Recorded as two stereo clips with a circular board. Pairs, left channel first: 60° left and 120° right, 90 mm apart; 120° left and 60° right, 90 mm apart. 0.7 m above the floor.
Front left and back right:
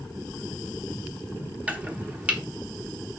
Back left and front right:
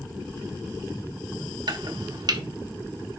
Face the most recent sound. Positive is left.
turn(degrees=-50)